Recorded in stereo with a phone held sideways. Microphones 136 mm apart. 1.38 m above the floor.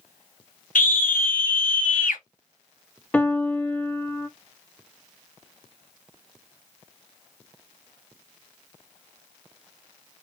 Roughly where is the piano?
Centre.